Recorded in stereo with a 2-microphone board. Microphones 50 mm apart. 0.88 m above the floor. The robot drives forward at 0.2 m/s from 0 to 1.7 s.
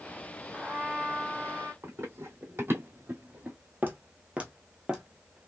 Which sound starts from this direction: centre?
A trumpet, at 0.5 s.